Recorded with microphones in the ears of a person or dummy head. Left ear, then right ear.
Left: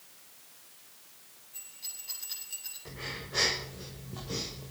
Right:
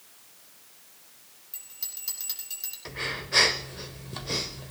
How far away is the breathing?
About 1.2 m.